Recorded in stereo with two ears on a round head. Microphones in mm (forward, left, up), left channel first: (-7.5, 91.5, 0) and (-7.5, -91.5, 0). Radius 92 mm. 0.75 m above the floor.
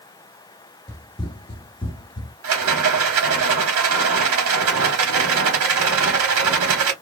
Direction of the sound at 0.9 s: 15° left (ahead or behind).